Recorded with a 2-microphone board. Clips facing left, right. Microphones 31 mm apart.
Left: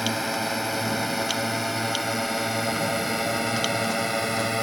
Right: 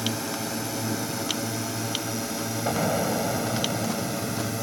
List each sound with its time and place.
0.0 s a drone: 35° left (ahead or behind); by 4.6 s 50° left (ahead or behind)
2.7 s an explosion: 80° right